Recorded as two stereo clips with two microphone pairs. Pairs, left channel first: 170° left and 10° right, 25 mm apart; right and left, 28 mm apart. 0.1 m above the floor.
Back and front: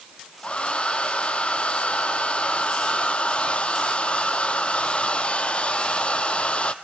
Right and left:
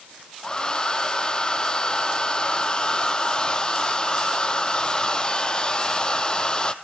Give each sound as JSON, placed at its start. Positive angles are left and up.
{"t": 0.4, "sound": "a hair dryer", "azimuth_deg": -150, "distance_m": 1.2}